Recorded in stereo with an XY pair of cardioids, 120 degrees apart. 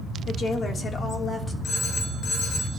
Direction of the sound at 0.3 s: 45° left.